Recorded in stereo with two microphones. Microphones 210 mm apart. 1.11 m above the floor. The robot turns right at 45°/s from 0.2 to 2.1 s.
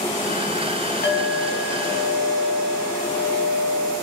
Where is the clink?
50° left, 1.8 m; by 3.9 s 100° left, 1.8 m.